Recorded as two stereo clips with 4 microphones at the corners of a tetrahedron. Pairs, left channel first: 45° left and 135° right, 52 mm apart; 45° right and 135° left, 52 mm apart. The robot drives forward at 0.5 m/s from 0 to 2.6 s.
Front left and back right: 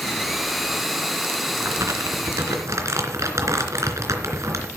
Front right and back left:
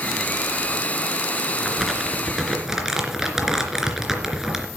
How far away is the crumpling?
About 2.5 m.